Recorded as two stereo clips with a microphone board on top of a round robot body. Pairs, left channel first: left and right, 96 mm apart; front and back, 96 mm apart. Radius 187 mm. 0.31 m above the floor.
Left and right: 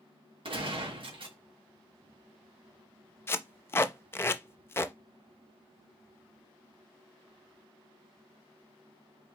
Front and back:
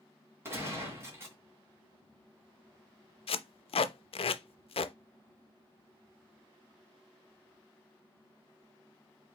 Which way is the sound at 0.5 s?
115° right.